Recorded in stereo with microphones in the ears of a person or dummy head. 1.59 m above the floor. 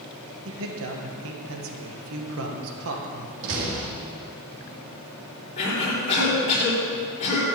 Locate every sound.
0.5 s a man speaking: 75° right (ahead or behind), 1.7 m
3.4 s a door slam: 75° right (ahead or behind), 2.5 m
5.6 s a cough: 35° left (ahead or behind), 4.5 m